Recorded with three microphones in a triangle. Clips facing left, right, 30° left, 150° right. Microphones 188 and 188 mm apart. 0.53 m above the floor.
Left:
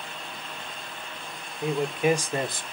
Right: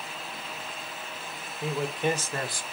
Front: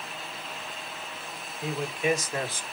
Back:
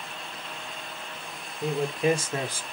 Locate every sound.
1.6 s a man speaking: 175° left, 2 m; by 2.6 s 135° left, 1.1 m